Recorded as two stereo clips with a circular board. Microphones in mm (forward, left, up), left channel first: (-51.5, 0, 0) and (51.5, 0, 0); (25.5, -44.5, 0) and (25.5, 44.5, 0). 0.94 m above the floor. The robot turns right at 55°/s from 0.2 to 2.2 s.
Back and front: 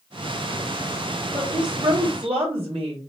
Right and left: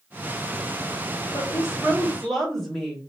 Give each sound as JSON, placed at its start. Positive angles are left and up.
{"t": 1.3, "sound": "a woman speaking", "azimuth_deg": -50, "distance_m": 2.5}